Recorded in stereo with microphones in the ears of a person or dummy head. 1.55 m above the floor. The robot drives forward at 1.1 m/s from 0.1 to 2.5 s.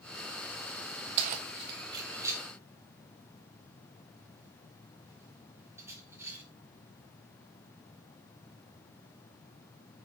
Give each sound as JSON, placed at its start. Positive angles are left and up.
{"t": 1.2, "sound": "keys jangling", "side_deg": -35, "distance_m": 0.6}